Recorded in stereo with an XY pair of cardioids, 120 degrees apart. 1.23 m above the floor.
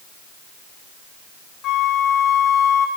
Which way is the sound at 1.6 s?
65° left.